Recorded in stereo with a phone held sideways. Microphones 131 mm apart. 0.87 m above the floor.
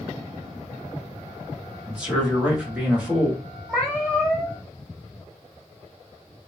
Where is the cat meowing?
10° left (ahead or behind), 1.3 m.